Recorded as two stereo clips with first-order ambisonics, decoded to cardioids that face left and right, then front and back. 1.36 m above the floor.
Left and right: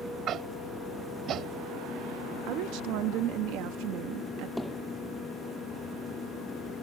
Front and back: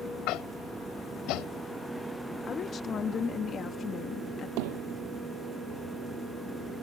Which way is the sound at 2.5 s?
65° right.